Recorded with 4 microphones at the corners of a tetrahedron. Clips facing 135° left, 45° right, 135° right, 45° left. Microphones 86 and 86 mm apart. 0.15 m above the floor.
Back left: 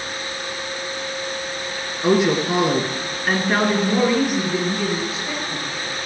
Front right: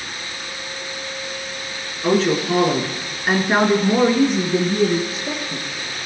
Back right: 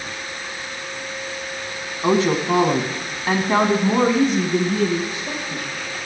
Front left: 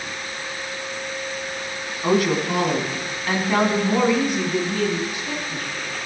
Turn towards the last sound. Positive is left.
turn(degrees=-75)